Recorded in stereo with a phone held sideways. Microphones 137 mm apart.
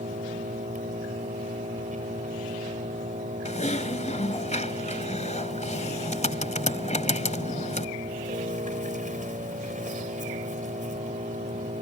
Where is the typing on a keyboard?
55° left (ahead or behind).